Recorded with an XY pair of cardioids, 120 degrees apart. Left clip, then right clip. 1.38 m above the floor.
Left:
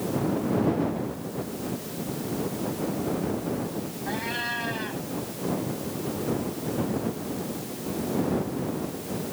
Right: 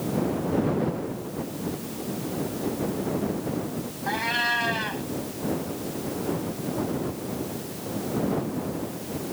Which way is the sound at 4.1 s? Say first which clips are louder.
Right 6 dB; 35° right.